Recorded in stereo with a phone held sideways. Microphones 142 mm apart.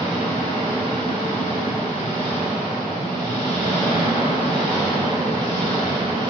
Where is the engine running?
35° right (ahead or behind), 2.5 m.